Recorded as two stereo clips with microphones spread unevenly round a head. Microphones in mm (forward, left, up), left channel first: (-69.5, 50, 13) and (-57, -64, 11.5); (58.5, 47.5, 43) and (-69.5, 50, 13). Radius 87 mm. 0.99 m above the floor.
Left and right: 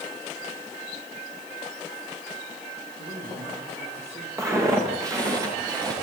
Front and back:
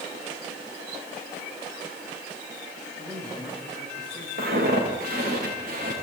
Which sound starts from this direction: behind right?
Footsteps, at 4.4 s.